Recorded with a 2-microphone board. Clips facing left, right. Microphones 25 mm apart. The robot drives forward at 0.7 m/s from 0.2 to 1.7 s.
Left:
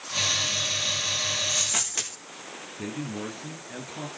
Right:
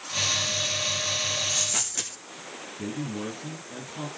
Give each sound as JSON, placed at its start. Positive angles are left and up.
{"t": 1.5, "sound": "a dropped coin", "side_deg": 35, "distance_m": 8.0}
{"t": 2.8, "sound": "a man speaking", "side_deg": 40, "distance_m": 9.5}